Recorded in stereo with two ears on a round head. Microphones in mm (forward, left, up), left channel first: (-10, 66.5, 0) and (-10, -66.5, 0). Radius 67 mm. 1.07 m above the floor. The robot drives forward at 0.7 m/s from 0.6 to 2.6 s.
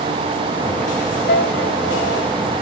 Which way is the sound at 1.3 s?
65° left (ahead or behind).